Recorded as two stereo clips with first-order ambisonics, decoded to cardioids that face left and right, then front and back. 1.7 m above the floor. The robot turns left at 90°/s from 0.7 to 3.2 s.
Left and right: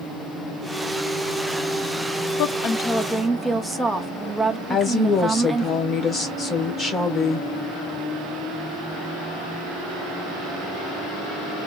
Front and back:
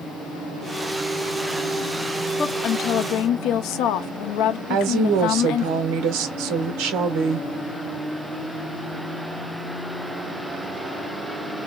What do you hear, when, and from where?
2.4 s a woman speaking: 70° left, 0.6 m; by 5.7 s straight ahead, 0.6 m
4.7 s a woman speaking: 155° left, 1.1 m